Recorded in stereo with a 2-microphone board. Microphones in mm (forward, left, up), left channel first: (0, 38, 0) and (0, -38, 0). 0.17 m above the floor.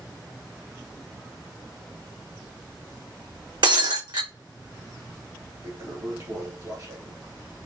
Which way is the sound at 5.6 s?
45° right (ahead or behind).